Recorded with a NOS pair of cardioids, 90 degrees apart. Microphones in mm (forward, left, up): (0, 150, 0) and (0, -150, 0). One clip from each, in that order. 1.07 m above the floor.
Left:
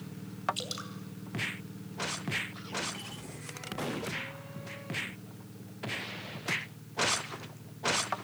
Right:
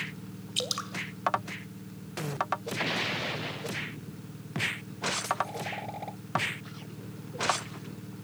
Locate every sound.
0.6 s dripping: 40° right, 2 m